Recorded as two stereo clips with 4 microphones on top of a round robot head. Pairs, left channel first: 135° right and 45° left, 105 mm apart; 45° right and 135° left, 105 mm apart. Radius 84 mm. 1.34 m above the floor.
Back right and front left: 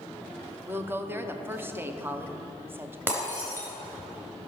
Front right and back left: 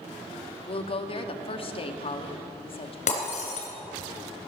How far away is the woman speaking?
About 0.9 m.